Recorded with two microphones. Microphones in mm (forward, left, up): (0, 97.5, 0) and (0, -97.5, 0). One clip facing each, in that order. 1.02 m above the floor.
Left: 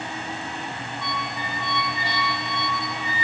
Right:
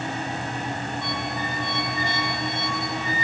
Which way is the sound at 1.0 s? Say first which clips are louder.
Right 3 dB; 45° right (ahead or behind).